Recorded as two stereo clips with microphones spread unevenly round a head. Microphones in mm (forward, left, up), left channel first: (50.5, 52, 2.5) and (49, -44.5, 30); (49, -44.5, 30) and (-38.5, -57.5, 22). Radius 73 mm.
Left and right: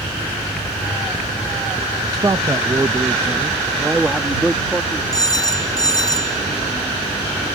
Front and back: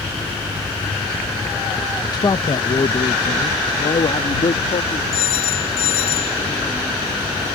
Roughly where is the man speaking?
Ahead right.